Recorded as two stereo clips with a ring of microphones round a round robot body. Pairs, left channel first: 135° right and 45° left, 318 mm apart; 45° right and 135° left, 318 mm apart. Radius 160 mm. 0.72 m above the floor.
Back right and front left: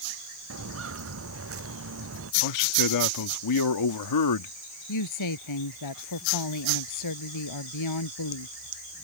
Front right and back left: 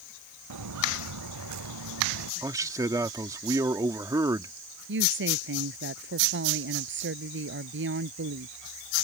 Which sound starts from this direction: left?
Footsteps, at 0.5 s.